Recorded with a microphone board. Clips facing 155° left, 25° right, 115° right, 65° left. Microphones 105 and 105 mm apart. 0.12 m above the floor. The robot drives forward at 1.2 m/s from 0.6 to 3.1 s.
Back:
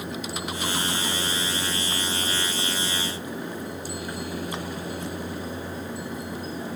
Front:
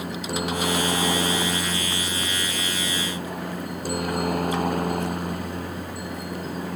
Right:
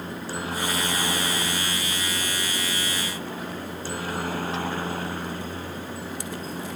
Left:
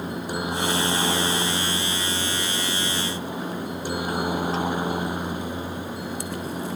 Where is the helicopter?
5° right.